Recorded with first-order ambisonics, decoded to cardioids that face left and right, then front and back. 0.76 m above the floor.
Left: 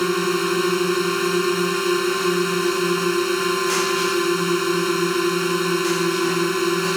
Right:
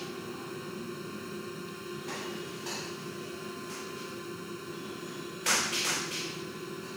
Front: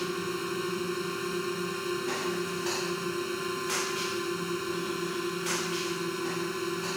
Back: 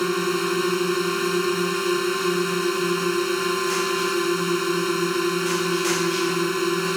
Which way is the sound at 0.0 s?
120° left.